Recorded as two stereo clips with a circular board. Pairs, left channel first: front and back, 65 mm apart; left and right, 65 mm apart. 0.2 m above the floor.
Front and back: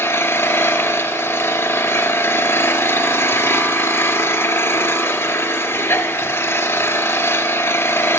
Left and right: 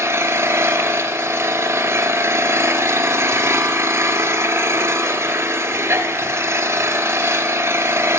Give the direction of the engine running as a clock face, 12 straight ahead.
2 o'clock.